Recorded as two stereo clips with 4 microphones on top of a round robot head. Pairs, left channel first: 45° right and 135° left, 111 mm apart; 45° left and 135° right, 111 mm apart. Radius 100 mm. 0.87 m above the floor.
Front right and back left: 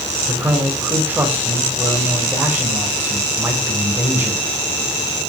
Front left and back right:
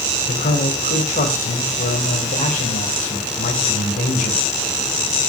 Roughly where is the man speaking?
Ahead left.